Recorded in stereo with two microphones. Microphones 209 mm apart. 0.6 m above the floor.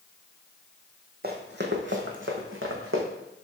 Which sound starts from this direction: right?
Running footsteps, at 1.2 s.